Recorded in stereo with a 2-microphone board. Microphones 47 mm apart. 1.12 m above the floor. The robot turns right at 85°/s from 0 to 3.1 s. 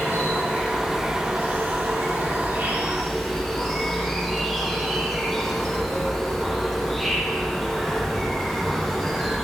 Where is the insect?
90° left, 5.5 m; by 9.4 s 5° right, 5.5 m.